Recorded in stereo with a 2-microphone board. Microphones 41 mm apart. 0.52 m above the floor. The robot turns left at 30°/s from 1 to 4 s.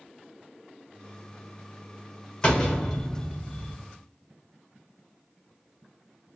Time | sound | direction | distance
2.4 | a door slam | 25° left | 1.1 m